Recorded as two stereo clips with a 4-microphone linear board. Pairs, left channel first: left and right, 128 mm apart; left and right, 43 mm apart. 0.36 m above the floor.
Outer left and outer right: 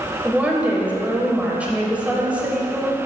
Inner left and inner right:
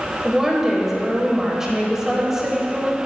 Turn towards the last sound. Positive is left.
turn(degrees=-10)  # may be behind; listen again after turning